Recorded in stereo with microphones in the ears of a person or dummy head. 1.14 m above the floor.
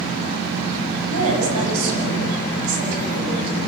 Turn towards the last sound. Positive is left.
turn(degrees=-60)  # may be behind; listen again after turning